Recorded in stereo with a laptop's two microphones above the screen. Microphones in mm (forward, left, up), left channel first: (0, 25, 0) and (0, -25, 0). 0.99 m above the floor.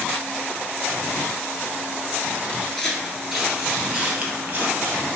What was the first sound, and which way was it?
Footsteps, 15° left (ahead or behind).